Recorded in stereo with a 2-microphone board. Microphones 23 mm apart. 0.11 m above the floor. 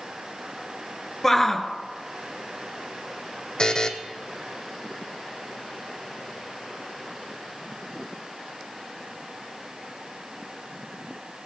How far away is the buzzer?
About 1.6 m.